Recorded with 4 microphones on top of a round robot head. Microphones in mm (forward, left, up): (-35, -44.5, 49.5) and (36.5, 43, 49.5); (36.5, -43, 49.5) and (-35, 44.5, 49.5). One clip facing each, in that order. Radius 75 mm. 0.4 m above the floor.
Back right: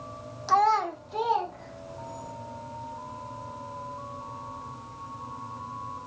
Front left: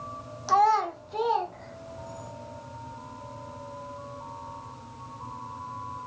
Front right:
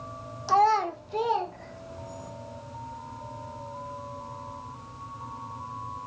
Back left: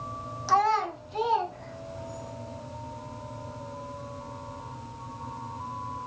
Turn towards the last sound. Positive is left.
turn(degrees=-45)